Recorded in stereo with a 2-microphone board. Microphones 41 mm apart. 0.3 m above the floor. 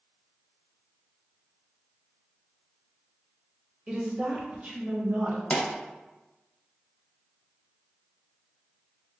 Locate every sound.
3.9 s a woman speaking: 15° right (ahead or behind), 0.9 m; by 5.4 s 50° right (ahead or behind), 1.4 m
5.5 s a pop: 25° left (ahead or behind), 0.9 m